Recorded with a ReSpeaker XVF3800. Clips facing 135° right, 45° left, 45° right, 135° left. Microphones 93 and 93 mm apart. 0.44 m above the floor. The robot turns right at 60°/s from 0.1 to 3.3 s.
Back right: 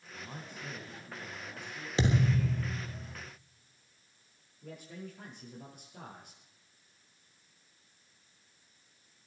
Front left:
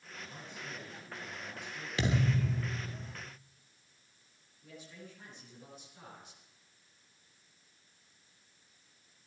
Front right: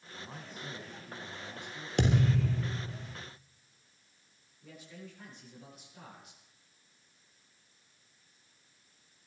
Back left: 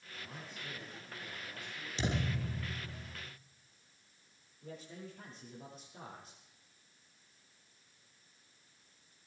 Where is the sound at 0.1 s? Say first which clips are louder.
Back right 2 dB, front right 3 dB; 115° right, 3.5 m; by 1.9 s 10° right, 3.5 m.